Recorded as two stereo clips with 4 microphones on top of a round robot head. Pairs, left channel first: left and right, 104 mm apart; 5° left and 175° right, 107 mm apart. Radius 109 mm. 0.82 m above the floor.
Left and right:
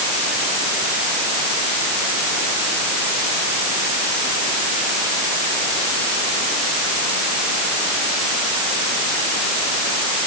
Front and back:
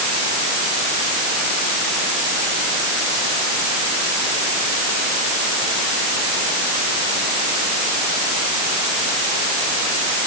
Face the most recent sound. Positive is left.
No sound to turn to.